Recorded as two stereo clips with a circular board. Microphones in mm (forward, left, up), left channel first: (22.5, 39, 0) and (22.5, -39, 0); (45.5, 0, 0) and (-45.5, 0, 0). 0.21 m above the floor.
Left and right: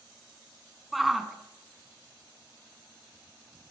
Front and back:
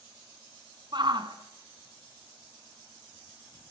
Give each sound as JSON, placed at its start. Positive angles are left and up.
{"t": 0.9, "sound": "a shout", "azimuth_deg": 180, "distance_m": 1.7}